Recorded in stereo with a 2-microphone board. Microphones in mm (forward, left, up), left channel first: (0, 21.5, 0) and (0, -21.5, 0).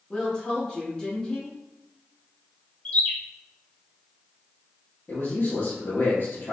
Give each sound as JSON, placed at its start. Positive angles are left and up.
{"t": 0.1, "sound": "a woman speaking", "side_deg": 20, "distance_m": 1.5}
{"t": 2.9, "sound": "a bird", "side_deg": 35, "distance_m": 0.7}
{"t": 5.1, "sound": "a man speaking", "side_deg": 50, "distance_m": 1.6}